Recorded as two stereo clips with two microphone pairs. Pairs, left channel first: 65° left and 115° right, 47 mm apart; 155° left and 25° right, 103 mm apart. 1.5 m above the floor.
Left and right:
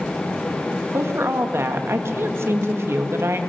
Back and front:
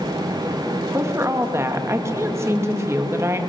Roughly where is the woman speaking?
Right.